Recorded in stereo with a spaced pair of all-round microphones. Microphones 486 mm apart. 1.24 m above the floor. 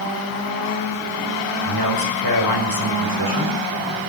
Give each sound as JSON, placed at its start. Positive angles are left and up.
{"t": 1.6, "sound": "a man speaking", "side_deg": -45, "distance_m": 4.5}